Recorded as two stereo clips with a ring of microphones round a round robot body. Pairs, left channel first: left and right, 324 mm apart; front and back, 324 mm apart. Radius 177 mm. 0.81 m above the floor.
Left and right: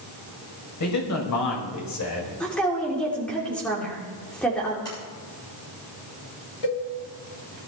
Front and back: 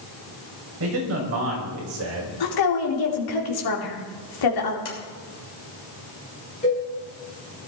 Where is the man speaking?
125° left, 4.5 m; by 2.3 s 130° left, 3.5 m.